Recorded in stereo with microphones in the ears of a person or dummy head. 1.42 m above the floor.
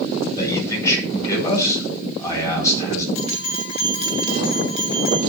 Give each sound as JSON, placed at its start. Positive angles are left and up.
{"t": 0.3, "sound": "a man speaking", "side_deg": 20, "distance_m": 9.5}
{"t": 3.1, "sound": "a bell", "side_deg": 35, "distance_m": 4.0}